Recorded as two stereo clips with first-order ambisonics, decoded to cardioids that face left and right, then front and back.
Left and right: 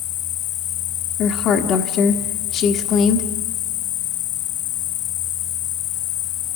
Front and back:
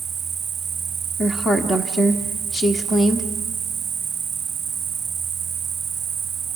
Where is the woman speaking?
65° left, 1.2 m.